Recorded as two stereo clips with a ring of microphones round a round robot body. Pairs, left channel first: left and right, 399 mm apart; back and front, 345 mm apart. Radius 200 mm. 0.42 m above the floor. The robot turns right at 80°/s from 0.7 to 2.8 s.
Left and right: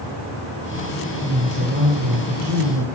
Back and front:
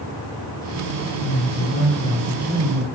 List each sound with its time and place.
1.2 s a woman speaking: 175° left, 2.0 m; by 2.9 s 55° right, 2.0 m